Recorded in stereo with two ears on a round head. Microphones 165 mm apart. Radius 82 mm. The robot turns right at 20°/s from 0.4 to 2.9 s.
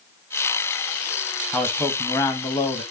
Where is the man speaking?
5° left (ahead or behind), 1.5 m; by 2.8 s 30° left (ahead or behind), 1.5 m.